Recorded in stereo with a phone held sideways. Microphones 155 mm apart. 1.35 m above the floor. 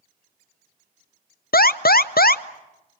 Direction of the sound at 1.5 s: 80° left.